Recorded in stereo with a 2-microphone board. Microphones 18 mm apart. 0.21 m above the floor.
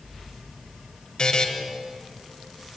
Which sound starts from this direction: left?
A buzzer, at 1.2 s.